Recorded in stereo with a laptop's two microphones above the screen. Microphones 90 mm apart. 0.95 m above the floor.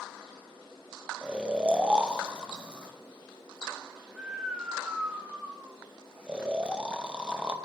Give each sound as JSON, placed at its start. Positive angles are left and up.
{"t": 1.2, "sound": "snoring", "side_deg": -10, "distance_m": 0.7}